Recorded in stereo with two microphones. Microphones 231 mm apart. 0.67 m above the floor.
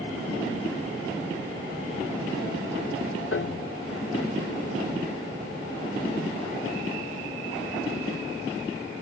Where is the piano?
60° left (ahead or behind), 0.6 m.